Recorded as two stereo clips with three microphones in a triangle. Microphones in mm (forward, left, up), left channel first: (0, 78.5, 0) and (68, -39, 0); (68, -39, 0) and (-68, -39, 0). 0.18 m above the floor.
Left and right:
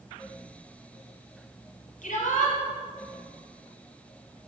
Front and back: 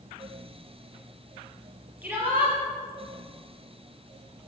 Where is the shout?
105° left, 5 m.